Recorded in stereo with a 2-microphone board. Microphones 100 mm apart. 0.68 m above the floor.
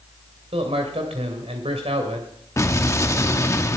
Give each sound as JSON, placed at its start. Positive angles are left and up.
{"t": 0.5, "sound": "a man speaking", "side_deg": -80, "distance_m": 2.5}
{"t": 2.6, "sound": "an explosion", "side_deg": 30, "distance_m": 1.0}